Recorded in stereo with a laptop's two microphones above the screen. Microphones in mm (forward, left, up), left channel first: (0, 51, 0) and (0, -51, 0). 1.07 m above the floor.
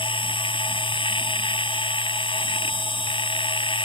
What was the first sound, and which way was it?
A machine running, 55° left (ahead or behind).